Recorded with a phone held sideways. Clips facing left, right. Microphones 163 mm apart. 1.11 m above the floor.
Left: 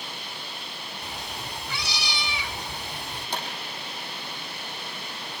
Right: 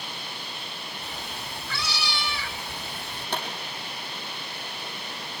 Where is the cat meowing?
15° left (ahead or behind), 1.7 m.